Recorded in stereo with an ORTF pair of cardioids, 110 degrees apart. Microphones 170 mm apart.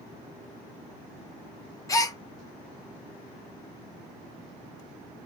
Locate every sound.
1.9 s a gasp: 20° left, 0.8 m